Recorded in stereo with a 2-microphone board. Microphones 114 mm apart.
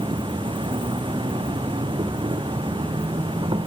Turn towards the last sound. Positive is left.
turn(degrees=-50)  # may be behind; listen again after turning